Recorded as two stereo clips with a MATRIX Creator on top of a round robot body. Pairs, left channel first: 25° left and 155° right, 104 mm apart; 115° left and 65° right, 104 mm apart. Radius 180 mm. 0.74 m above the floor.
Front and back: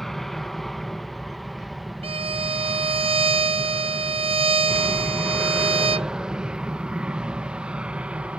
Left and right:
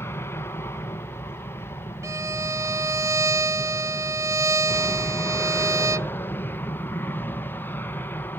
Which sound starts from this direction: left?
An aircraft, at 0.0 s.